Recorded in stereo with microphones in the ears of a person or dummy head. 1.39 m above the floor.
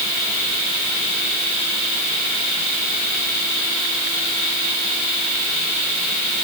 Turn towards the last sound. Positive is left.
No sound to turn to.